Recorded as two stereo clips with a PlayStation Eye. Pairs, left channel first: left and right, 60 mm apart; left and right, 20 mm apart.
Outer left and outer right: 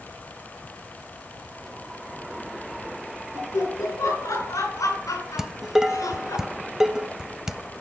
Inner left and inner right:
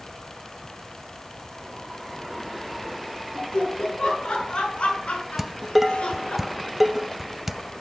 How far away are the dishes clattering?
About 0.8 m.